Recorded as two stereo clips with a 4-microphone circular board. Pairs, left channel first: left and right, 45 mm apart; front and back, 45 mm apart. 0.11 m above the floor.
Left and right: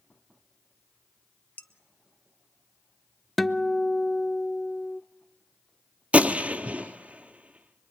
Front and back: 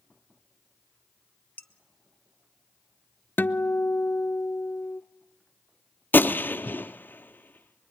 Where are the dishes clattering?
50° left, 1.4 m.